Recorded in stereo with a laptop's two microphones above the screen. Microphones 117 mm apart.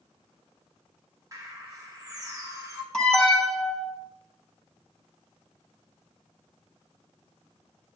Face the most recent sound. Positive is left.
turn(degrees=5)  # may be behind; listen again after turning